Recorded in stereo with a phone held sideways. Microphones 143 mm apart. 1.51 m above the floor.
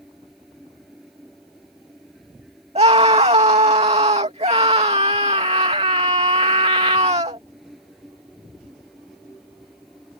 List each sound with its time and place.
0.0 s a fan: centre (ahead or behind)
2.8 s a scream: 45° right (ahead or behind)